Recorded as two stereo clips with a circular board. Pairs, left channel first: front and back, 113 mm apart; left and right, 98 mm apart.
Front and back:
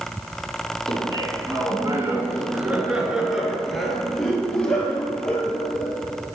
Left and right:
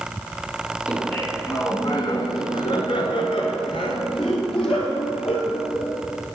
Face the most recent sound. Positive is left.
turn(degrees=75)